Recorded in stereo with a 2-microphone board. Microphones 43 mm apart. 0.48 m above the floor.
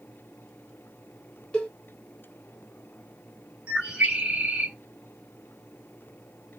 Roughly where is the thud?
No thud in this recording.